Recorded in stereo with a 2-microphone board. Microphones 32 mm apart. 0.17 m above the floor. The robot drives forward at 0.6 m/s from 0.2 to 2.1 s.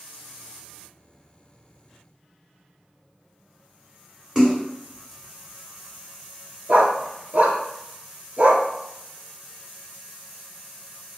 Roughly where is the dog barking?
Right.